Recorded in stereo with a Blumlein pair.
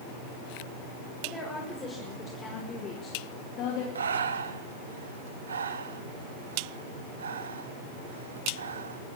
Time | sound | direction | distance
1.2 | a woman speaking | 10° left | 6.5 m
4.0 | breathing | 70° right | 1.3 m